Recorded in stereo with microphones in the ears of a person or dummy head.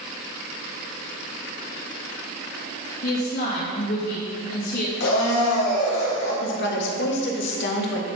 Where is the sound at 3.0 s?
55° left (ahead or behind), 2.5 m.